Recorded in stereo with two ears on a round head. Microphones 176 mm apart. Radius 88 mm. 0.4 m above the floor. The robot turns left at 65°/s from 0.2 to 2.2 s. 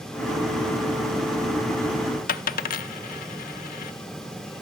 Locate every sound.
2.3 s a dropped coin: 45° left (ahead or behind), 0.7 m